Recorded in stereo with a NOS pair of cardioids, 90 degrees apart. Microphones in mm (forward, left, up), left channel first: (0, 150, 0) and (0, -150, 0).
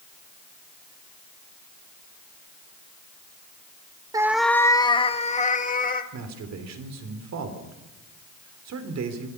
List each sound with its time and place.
4.1 s a cat meowing: 10° right, 0.8 m; by 6.0 s 30° left, 2.5 m
6.1 s a man speaking: 60° right, 4 m